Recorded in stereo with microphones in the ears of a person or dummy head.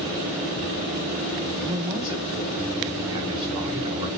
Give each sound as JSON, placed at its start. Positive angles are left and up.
{"t": 1.6, "sound": "a man speaking", "side_deg": -30, "distance_m": 1.0}